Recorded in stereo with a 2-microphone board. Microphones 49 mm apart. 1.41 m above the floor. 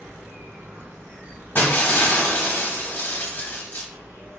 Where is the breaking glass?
45° left (ahead or behind), 0.9 m.